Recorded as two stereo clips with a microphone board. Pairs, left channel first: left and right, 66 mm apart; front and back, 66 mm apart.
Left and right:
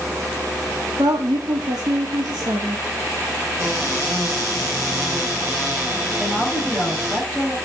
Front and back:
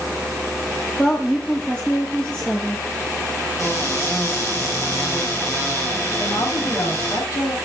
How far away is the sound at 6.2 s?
About 7 m.